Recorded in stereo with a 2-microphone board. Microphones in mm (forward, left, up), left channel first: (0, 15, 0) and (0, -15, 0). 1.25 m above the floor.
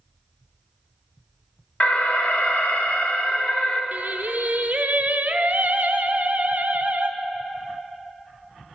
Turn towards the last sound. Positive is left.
turn(degrees=-60)  # may be behind; listen again after turning